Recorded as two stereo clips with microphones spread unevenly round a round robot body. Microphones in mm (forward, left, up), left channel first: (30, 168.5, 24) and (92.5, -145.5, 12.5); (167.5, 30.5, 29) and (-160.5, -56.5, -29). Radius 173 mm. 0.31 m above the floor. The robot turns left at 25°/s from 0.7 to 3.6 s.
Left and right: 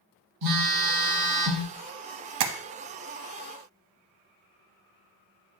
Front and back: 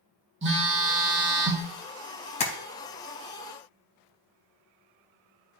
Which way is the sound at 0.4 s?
110° right.